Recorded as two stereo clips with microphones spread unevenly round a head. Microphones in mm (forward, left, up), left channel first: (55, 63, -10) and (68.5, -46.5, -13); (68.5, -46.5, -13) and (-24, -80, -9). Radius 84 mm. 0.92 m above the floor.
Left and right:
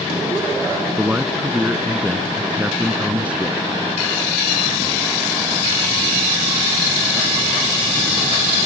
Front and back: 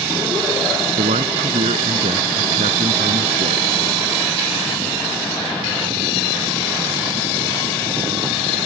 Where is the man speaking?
165° right.